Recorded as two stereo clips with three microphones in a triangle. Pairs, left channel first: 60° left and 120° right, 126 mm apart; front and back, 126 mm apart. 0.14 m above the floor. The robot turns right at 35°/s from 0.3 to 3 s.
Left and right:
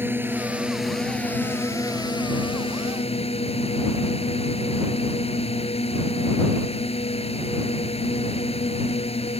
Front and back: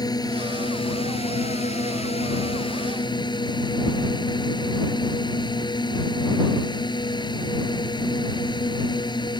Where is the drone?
50° right; by 9.4 s 45° left.